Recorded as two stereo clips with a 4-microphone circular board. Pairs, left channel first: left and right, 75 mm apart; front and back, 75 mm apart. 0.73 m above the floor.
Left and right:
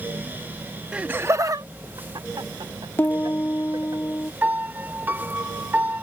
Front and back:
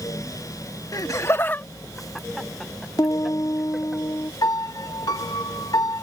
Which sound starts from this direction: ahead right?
A piano, at 4.4 s.